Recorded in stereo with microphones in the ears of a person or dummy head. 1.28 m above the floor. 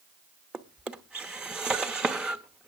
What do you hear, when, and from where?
0.5 s a drawer: 5° right (ahead or behind), 0.7 m